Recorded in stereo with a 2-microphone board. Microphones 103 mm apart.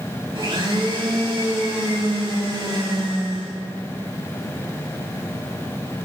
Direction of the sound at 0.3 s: 45° right (ahead or behind).